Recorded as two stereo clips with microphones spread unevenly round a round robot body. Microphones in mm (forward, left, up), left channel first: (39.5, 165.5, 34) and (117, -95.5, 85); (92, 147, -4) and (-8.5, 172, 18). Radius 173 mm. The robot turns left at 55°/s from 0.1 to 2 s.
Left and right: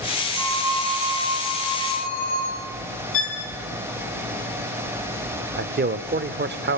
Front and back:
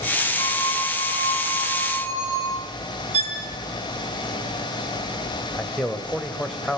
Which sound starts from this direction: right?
A phone ringing, at 0.3 s.